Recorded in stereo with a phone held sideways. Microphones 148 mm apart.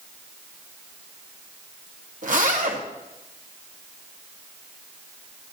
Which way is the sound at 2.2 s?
65° right (ahead or behind).